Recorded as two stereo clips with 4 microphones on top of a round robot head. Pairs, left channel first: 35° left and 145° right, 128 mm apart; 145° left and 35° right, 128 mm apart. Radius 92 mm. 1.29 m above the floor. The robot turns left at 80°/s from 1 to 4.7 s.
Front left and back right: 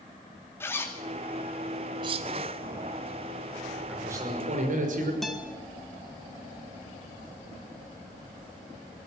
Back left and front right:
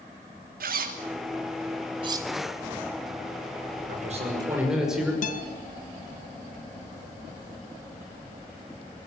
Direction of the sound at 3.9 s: 60° right.